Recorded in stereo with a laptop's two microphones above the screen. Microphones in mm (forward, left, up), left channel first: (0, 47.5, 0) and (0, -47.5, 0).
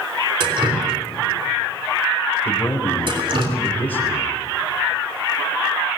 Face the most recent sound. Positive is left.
turn(degrees=15)  # may be behind; listen again after turning